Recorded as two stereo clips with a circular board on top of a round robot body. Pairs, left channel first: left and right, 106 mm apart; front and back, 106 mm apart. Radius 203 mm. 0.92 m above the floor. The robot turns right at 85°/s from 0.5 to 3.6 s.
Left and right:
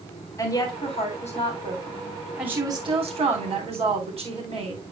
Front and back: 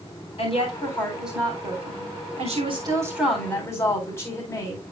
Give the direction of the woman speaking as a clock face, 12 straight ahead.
11 o'clock.